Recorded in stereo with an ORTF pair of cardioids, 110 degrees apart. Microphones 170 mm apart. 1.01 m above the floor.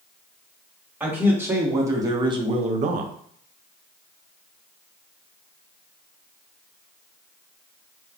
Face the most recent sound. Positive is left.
turn(degrees=-65)